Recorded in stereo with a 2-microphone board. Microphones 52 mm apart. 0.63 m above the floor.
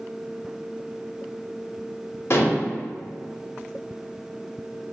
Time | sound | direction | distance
2.3 | dishes clattering | 55° left (ahead or behind) | 0.7 m